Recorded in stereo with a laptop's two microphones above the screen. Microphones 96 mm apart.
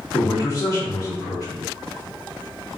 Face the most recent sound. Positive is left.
turn(degrees=35)  # may be behind; listen again after turning